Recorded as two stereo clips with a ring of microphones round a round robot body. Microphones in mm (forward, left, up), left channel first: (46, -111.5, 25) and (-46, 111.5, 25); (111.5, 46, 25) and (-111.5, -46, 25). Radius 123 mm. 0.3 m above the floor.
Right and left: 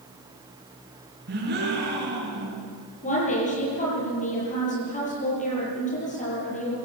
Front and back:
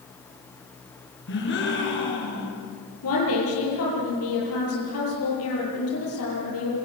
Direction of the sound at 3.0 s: 10° right.